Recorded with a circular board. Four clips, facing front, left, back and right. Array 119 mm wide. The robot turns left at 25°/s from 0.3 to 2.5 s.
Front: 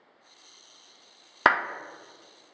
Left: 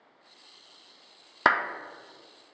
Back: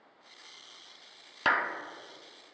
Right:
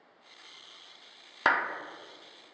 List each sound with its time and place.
1.4 s a clap: 25° left, 0.6 m; by 1.6 s 20° left, 0.6 m